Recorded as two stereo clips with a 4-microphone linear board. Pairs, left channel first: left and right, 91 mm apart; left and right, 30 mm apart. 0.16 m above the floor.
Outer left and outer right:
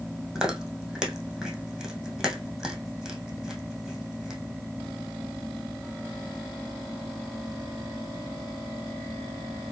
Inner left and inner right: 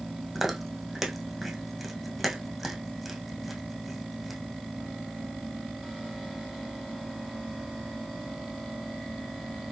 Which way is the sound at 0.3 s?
5° right (ahead or behind).